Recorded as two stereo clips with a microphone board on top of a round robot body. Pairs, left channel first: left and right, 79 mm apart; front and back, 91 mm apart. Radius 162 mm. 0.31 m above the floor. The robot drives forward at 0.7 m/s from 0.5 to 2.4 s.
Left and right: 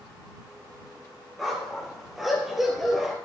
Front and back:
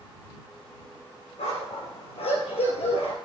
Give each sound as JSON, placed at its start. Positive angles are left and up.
{"t": 1.4, "sound": "a dog barking", "azimuth_deg": 0, "distance_m": 4.0}